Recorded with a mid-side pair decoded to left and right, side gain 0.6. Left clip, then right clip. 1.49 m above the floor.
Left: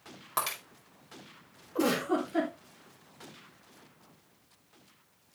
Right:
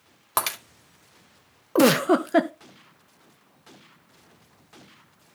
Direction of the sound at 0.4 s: 50° right.